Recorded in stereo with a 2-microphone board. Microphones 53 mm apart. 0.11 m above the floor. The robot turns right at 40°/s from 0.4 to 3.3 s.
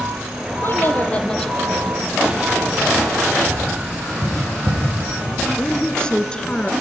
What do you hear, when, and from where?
0.6 s a woman speaking: 135° left, 3 m; by 2.8 s 135° right, 3 m
3.5 s tapping: 35° right (ahead or behind), 9.5 m
5.6 s a woman speaking: 15° left (ahead or behind), 1.6 m